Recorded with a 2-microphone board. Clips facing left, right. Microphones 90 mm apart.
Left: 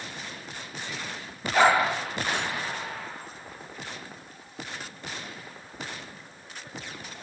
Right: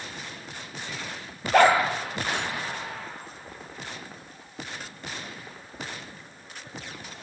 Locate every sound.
1.5 s a dog barking: 55° right (ahead or behind), 4 m